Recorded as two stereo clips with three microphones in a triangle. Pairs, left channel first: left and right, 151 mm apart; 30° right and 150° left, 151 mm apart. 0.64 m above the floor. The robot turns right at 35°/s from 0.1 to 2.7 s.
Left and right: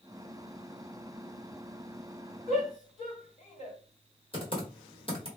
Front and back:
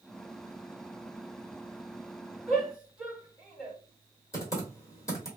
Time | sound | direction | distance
2.5 | a shout | 60° left | 1.9 m
4.3 | typing on a keyboard | 40° left | 1.4 m